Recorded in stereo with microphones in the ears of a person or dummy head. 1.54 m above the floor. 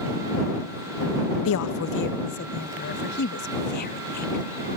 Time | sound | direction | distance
1.4 | a woman speaking | 65° left (ahead or behind) | ?